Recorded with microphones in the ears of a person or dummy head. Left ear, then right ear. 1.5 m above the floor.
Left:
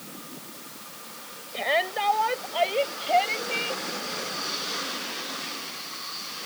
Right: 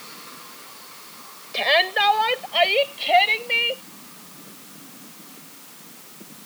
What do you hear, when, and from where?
1.5 s a shout: 80° right; by 3.8 s 65° right (ahead or behind)